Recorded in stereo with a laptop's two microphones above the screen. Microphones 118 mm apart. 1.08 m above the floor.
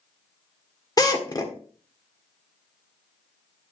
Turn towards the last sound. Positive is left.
turn(degrees=35)  # may be behind; listen again after turning